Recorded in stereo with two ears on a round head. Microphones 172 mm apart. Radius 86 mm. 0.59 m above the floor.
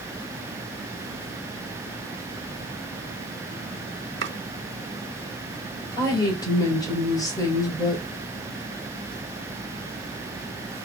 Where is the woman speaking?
20° left (ahead or behind), 3 m.